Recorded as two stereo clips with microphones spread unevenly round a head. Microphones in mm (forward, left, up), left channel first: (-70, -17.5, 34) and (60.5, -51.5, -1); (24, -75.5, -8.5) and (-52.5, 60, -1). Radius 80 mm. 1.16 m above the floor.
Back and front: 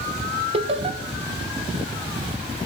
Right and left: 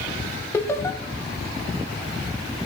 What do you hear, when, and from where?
0.5 s laughter: 10° left, 0.9 m